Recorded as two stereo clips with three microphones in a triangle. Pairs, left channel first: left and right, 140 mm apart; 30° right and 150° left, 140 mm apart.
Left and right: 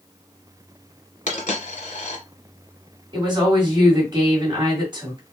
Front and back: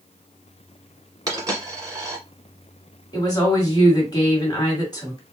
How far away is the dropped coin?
About 1.2 m.